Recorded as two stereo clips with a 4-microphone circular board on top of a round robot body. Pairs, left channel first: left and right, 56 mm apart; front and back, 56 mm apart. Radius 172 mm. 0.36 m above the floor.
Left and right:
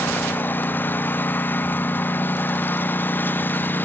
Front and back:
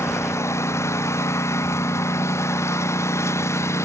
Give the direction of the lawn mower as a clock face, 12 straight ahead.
11 o'clock.